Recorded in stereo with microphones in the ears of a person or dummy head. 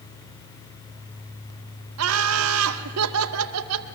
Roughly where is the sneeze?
I don't hear a sneeze.